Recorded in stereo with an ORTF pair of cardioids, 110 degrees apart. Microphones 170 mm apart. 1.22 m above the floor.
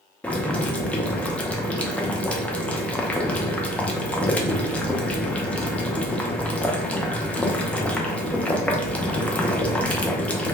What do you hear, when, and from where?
0.2 s boiling: 10° left, 0.5 m